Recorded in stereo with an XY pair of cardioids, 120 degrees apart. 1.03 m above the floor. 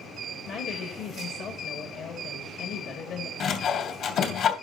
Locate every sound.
0.5 s a woman speaking: 65° left, 1.9 m
3.4 s sawing: 65° left, 2.5 m